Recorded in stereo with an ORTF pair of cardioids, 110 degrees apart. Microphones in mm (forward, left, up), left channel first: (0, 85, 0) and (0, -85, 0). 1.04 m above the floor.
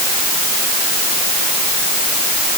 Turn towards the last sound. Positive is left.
No sound to turn to.